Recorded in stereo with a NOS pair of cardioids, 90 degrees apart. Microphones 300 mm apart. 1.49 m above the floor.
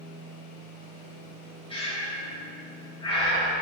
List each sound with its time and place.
1.7 s breathing: 15° left, 3.5 m